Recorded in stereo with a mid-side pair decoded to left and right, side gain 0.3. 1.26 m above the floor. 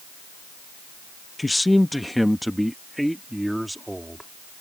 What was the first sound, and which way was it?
A man speaking, 20° left.